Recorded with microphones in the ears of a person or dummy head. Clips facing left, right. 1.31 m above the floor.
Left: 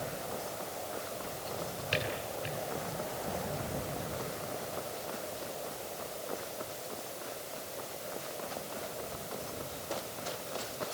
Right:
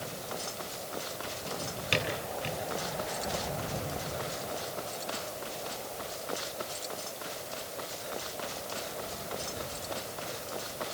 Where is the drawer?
85° right, 8.5 m.